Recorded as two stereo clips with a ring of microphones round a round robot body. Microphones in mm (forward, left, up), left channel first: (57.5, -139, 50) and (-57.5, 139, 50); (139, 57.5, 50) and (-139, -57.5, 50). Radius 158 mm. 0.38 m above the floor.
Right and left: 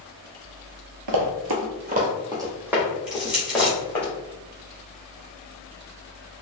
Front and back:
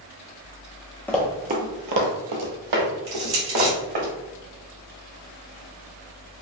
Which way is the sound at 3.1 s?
160° right.